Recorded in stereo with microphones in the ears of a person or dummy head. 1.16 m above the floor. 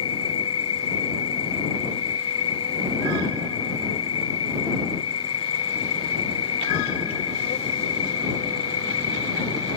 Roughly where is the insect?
Left.